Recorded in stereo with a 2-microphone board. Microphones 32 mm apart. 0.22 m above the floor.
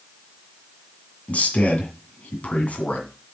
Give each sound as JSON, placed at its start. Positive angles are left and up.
{"t": 1.3, "sound": "a man speaking", "side_deg": 45, "distance_m": 2.0}